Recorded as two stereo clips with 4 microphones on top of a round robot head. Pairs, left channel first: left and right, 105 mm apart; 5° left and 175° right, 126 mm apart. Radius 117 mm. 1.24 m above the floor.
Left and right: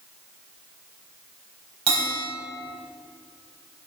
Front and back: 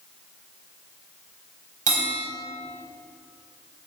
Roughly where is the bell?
Behind right.